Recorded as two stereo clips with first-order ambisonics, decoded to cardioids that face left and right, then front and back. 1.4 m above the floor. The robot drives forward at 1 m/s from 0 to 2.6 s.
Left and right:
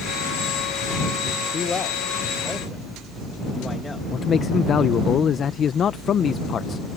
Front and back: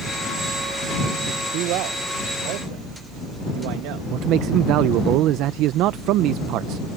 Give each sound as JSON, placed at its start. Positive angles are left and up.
{"t": 1.5, "sound": "a man speaking", "azimuth_deg": 155}
{"t": 4.1, "sound": "a man speaking", "azimuth_deg": 150}